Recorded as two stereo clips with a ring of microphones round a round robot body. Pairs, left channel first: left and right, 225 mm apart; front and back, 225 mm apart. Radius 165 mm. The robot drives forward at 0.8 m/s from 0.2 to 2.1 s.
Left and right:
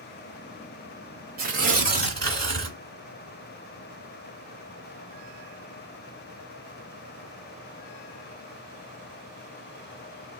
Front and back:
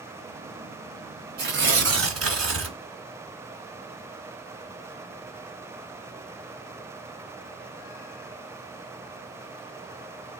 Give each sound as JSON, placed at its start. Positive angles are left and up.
{"t": 1.4, "sound": "tearing paper", "azimuth_deg": -135, "distance_m": 0.8}